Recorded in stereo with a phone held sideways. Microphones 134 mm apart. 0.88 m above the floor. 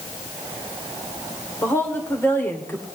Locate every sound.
1.6 s a woman speaking: 15° left (ahead or behind), 3 m